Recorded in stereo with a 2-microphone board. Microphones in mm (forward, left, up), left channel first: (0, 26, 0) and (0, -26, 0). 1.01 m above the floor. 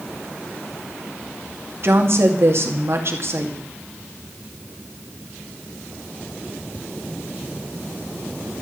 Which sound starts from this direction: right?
A woman speaking, at 1.8 s.